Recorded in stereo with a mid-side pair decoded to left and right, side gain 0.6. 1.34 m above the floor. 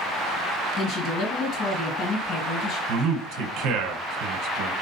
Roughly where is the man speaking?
Right.